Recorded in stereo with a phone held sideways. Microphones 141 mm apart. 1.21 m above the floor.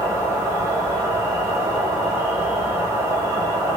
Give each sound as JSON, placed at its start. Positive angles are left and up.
{"t": 0.0, "sound": "an insect", "side_deg": -20, "distance_m": 1.6}